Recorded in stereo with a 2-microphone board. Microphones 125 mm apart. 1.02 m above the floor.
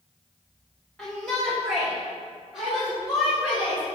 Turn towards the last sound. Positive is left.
turn(degrees=-10)  # may be behind; listen again after turning